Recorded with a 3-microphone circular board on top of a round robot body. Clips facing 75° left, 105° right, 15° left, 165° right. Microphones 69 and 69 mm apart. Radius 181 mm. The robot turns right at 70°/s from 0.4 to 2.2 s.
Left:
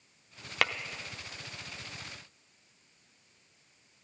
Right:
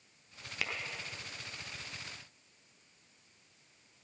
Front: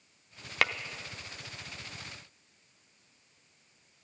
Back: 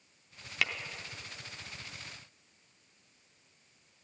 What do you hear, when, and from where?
0.6 s tapping: 55° left, 0.8 m; by 0.7 s 60° left, 0.8 m